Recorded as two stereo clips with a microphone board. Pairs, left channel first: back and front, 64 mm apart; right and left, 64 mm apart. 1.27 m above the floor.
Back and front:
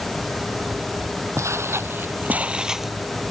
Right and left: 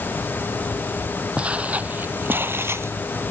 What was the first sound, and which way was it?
Footsteps, 20° left.